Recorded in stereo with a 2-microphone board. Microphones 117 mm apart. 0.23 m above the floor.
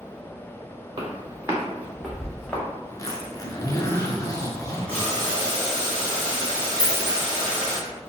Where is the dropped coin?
55° left (ahead or behind), 1.0 m.